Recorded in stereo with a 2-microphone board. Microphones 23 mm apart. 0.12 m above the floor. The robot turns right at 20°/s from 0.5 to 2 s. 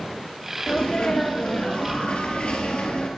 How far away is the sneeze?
About 2.5 m.